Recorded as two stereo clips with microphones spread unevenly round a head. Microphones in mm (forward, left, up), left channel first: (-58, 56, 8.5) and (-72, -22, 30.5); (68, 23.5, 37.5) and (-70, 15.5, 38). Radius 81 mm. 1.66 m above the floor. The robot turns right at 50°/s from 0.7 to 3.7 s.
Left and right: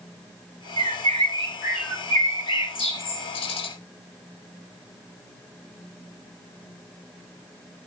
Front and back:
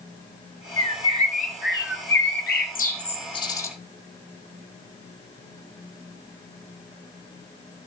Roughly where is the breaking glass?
I don't hear breaking glass.